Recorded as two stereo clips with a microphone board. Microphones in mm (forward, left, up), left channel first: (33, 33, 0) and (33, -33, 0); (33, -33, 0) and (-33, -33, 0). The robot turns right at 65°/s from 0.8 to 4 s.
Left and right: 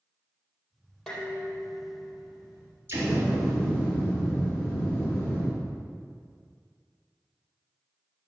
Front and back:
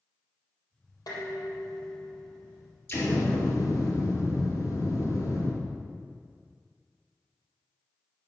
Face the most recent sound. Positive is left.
turn(degrees=30)